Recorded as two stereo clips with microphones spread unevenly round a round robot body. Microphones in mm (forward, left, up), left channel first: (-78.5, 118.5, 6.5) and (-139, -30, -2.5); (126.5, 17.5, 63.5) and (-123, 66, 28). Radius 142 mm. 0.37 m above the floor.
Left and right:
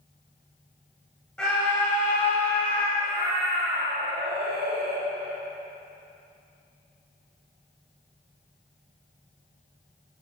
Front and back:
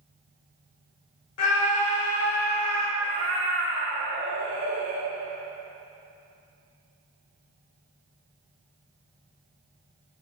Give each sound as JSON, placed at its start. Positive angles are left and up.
{"t": 1.4, "sound": "a scream", "azimuth_deg": -15, "distance_m": 1.3}
{"t": 3.0, "sound": "a cat meowing", "azimuth_deg": -120, "distance_m": 2.0}